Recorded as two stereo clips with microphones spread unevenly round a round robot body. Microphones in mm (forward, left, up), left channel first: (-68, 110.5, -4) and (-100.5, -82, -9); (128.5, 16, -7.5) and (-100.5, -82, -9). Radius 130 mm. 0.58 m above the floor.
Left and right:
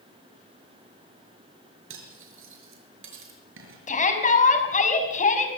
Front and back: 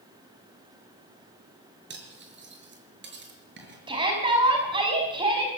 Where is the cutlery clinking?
110° right, 5.5 m.